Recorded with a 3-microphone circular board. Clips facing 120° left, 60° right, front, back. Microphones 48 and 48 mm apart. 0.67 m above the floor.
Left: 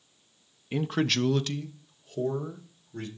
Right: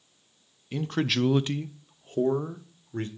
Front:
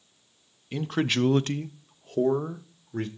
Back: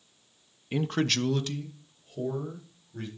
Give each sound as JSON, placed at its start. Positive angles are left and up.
{"t": 0.7, "sound": "a man speaking", "azimuth_deg": 145, "distance_m": 0.5}